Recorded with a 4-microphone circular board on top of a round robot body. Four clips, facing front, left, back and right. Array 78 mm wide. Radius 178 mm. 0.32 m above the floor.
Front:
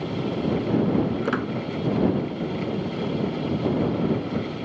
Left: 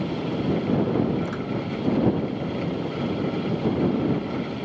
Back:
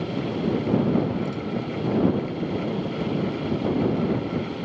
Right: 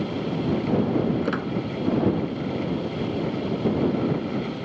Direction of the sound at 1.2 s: 20° right.